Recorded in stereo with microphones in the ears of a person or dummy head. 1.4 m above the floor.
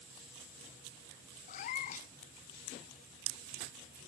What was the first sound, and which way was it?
A cat meowing, 45° left (ahead or behind).